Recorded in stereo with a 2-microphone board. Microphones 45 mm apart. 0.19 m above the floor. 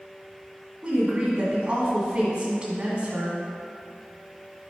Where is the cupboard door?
I don't hear a cupboard door.